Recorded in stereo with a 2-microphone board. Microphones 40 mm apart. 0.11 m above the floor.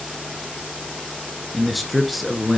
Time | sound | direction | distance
1.5 | a man speaking | centre (ahead or behind) | 1.3 m